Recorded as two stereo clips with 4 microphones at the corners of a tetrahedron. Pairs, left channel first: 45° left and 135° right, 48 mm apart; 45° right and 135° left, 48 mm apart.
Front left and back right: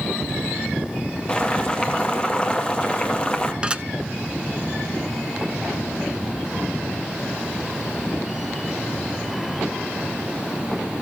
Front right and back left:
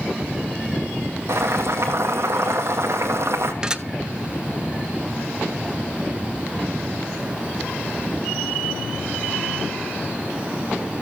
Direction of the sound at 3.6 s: 175° right.